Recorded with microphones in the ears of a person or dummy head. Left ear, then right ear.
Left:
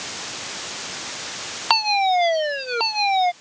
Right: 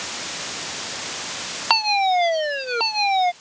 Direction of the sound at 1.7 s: 10° left (ahead or behind).